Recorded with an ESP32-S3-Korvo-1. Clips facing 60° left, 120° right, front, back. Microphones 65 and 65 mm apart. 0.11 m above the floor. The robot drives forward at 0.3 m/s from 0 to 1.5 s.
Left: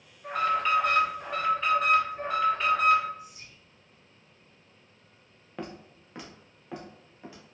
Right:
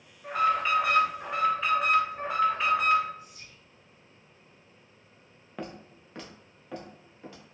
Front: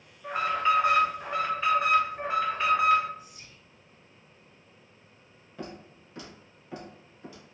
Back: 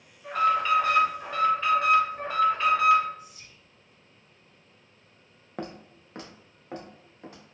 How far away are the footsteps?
About 0.7 m.